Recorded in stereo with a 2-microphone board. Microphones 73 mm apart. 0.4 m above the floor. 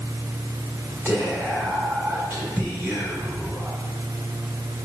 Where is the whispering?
25° right (ahead or behind), 1.5 m.